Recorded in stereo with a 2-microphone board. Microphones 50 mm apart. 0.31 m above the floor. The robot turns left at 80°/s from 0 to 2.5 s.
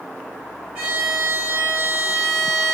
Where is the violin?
10° right, 1.8 m; by 2.7 s 150° right, 1.8 m.